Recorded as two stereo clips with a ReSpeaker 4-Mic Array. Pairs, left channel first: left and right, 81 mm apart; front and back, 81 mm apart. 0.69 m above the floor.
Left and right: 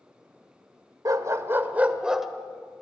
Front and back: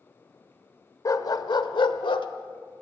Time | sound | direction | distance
1.1 | a dog barking | 45° right | 1.1 m